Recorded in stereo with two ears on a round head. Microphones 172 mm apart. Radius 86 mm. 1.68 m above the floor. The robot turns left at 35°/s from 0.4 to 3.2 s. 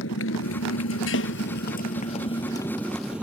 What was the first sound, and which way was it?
A motorcycle, 70° left (ahead or behind).